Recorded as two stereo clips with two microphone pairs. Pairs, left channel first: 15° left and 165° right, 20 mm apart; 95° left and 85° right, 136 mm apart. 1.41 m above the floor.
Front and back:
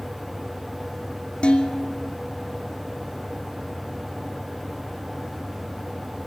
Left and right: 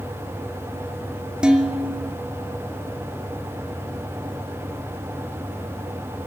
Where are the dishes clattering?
5° right, 2.5 m.